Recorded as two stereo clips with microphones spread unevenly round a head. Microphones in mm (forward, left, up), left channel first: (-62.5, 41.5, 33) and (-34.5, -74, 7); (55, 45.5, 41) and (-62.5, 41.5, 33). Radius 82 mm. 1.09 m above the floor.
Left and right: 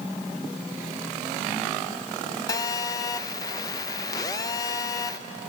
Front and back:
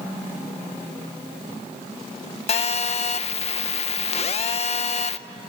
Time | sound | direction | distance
2.5 | a phone buzzing | 35° left | 0.7 m